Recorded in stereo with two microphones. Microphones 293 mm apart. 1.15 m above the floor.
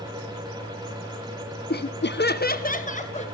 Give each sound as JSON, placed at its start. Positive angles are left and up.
{"t": 1.7, "sound": "laughter", "side_deg": 35, "distance_m": 0.7}